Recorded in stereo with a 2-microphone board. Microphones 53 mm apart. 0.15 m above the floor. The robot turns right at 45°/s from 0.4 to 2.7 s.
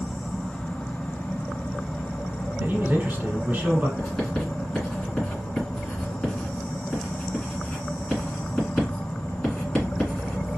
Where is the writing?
15° left (ahead or behind), 1.9 m.